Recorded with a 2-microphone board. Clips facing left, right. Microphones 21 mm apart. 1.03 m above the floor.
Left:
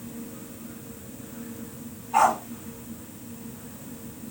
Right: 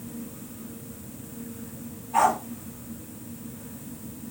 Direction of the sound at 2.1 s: 25° left (ahead or behind).